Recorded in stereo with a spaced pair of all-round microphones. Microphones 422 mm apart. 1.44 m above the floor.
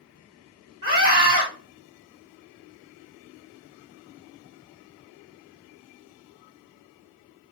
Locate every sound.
0.8 s a scream: 30° left (ahead or behind), 1.9 m